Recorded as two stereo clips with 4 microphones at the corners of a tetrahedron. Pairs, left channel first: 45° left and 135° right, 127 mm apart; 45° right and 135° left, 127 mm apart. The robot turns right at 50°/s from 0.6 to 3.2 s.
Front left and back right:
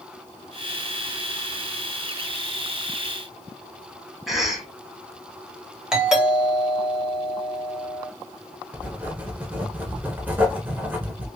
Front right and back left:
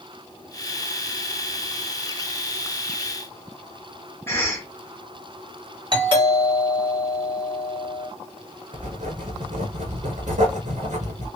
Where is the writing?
150° left, 1.6 m.